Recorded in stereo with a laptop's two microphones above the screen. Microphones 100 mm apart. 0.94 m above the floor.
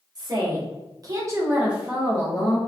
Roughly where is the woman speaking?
Right.